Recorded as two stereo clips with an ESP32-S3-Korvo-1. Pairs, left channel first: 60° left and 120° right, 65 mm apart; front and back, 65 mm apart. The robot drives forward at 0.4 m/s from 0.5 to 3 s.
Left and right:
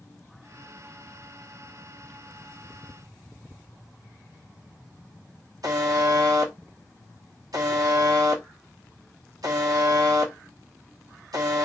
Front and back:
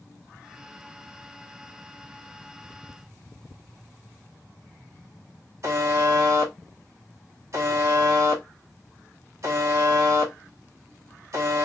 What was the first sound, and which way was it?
A buzzer, 140° right.